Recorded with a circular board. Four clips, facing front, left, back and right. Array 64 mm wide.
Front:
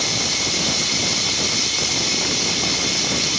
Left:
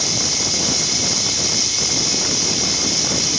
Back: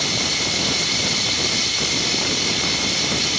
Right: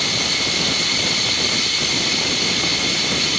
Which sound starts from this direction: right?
Running water, at 0.0 s.